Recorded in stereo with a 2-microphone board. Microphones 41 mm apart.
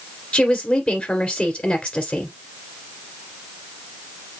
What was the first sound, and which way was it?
A woman speaking, 25° left (ahead or behind).